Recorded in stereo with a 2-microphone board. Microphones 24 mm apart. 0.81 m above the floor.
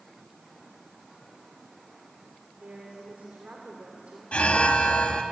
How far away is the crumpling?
I don't hear crumpling.